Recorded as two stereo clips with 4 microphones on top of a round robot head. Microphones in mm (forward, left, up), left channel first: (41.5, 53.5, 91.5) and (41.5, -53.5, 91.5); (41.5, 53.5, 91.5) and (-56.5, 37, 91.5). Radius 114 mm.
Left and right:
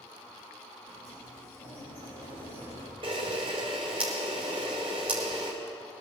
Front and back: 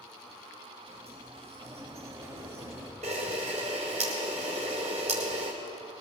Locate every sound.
0.9 s a sliding door: 130° left, 5.5 m
3.0 s a camera shutter: 145° right, 1.6 m